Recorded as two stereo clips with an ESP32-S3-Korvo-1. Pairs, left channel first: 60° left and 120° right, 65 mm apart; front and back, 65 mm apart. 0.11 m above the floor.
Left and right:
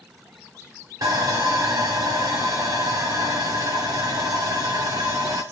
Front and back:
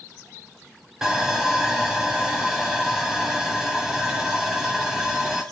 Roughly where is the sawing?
Right.